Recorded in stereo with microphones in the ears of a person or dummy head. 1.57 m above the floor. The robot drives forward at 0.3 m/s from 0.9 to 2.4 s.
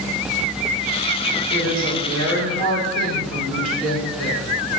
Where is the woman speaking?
75° right (ahead or behind), 2.5 m; by 4.5 s 80° right, 2.5 m.